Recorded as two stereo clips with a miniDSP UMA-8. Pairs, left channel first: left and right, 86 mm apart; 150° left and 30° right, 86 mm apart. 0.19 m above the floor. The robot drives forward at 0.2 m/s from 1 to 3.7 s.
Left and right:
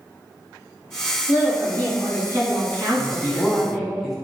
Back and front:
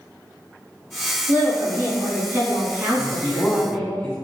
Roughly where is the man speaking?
Behind.